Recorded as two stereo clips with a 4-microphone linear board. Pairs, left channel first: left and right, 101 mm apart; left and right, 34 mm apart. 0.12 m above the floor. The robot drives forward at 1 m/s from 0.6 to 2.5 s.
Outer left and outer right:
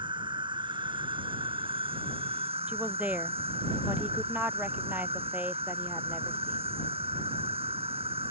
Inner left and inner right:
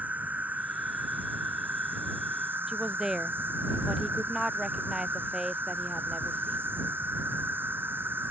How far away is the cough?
No cough in this recording.